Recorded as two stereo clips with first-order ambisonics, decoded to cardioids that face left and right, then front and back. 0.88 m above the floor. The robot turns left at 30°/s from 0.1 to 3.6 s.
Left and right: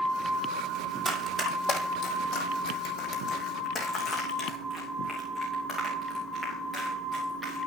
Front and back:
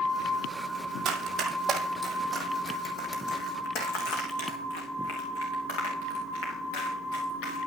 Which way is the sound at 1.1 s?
170° left.